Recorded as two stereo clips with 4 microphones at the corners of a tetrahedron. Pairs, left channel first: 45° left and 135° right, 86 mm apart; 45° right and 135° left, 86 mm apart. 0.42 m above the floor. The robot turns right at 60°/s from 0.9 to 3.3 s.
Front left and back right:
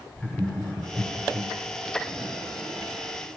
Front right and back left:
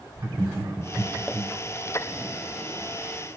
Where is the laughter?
115° left, 1.2 m; by 1.5 s 150° left, 1.2 m.